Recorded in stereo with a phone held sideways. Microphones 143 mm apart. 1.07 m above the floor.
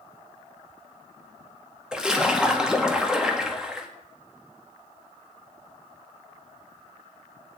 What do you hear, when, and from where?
1.9 s a splash: 5° right (ahead or behind), 1.6 m